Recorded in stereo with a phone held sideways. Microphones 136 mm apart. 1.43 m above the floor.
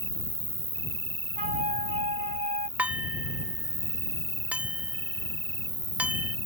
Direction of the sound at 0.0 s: 45° right (ahead or behind).